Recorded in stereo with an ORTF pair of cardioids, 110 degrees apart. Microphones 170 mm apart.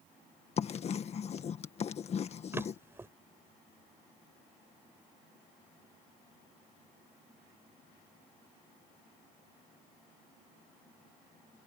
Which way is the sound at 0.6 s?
40° left.